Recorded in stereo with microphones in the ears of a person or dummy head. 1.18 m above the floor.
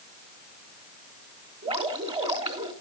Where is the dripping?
30° right (ahead or behind), 1.8 m.